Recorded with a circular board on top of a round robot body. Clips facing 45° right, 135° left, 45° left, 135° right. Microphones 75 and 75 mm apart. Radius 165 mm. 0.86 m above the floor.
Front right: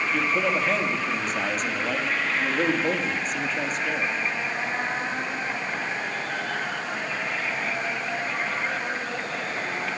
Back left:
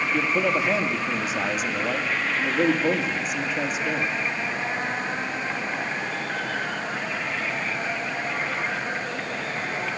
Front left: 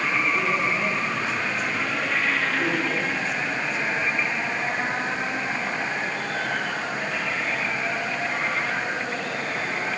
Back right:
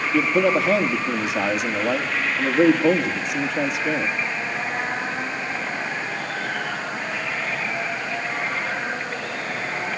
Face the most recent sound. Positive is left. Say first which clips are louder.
# back left 2 dB, back right 9 dB
turn(degrees=-140)